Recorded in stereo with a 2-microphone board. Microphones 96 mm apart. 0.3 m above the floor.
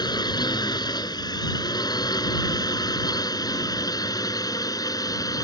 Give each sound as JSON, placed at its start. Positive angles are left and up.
{"t": 0.0, "sound": "a drone", "side_deg": 45}